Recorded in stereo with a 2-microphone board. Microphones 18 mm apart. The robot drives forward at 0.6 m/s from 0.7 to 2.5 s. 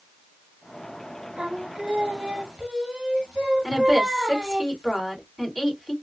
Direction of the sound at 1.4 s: 70° right (ahead or behind).